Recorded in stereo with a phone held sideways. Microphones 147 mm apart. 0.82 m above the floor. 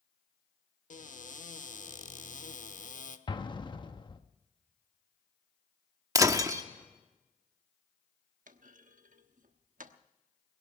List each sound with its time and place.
0.9 s a cupboard door: 65° left (ahead or behind), 1.0 m
3.3 s an explosion: 35° left (ahead or behind), 1.0 m
6.2 s breaking glass: 25° right (ahead or behind), 1.0 m
8.5 s a clunk: 70° right (ahead or behind), 1.0 m